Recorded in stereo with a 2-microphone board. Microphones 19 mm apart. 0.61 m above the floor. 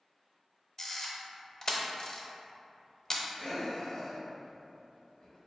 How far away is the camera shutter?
About 0.6 m.